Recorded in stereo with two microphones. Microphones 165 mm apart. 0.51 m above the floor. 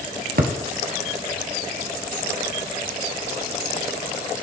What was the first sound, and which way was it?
A thud, 65° right (ahead or behind).